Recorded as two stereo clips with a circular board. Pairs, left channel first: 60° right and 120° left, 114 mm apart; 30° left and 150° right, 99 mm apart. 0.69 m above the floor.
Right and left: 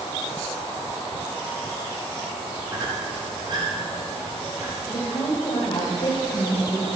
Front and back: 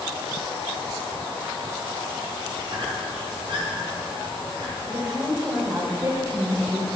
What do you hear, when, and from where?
2.7 s a squeak: 170° left, 5 m
4.9 s a woman speaking: 85° right, 3.5 m